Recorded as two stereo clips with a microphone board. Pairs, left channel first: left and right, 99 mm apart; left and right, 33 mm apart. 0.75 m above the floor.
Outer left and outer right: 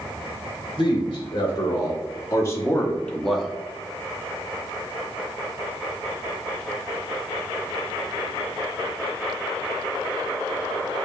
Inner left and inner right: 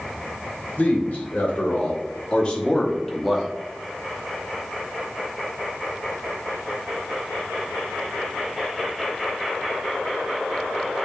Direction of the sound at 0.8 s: 55° left (ahead or behind).